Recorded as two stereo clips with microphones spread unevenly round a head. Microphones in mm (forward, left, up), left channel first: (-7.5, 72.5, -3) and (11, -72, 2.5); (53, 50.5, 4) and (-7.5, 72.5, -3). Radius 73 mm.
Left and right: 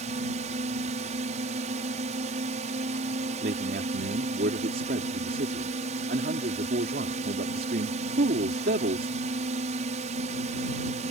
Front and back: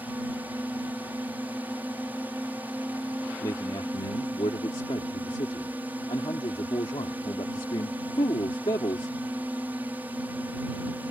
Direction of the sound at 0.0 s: 125° right.